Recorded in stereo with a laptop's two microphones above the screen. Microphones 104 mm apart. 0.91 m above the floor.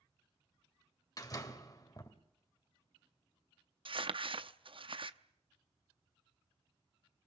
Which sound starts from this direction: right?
Crumpling, at 3.9 s.